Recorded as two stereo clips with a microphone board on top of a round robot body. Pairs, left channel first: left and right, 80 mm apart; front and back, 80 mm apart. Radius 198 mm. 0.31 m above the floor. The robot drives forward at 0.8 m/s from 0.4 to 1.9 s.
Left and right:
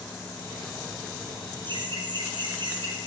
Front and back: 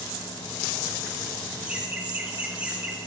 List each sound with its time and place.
1.6 s laughter: 105° right, 4 m